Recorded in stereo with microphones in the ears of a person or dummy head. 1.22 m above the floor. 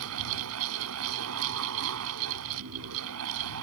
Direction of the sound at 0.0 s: 80° right.